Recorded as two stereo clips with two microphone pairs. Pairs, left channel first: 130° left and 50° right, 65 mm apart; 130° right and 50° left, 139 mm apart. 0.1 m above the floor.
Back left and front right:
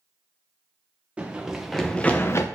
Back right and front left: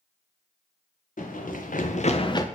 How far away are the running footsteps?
About 1.2 m.